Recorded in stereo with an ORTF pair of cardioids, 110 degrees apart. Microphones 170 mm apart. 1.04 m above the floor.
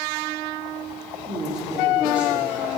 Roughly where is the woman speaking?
Ahead right.